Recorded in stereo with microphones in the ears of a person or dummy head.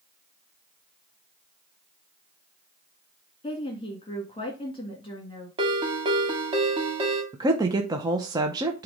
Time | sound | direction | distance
3.4 | a woman speaking | 25° left (ahead or behind) | 2 m
5.6 | a ringtone | 30° right (ahead or behind) | 1.6 m
7.3 | a woman speaking | 15° right (ahead or behind) | 0.8 m